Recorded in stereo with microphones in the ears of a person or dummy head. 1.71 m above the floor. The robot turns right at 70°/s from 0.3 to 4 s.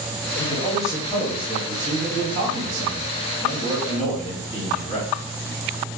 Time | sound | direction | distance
0.4 | a man speaking | 135° left | 1.3 m